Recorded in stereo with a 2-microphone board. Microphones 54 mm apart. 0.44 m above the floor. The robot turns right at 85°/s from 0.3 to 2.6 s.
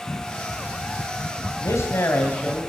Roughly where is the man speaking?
Left.